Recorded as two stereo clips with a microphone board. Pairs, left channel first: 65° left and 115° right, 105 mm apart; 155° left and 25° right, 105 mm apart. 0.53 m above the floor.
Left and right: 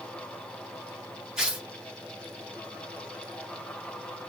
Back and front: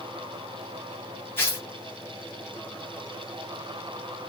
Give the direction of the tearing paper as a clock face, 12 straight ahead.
6 o'clock.